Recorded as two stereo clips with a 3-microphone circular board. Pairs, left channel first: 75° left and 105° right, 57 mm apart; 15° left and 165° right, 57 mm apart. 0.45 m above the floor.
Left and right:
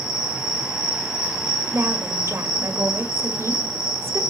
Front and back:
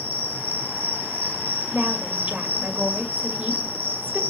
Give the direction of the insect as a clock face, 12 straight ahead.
6 o'clock.